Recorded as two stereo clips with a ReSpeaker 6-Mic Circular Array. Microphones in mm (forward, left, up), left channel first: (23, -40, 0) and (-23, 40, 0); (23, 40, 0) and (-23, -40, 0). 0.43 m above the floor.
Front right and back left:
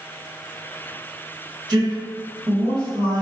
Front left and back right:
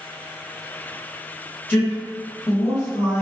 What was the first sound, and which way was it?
A man speaking, 120° left.